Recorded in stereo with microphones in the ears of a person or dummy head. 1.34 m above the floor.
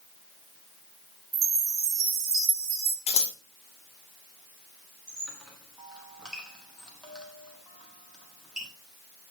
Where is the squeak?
5° right (ahead or behind), 1.4 m.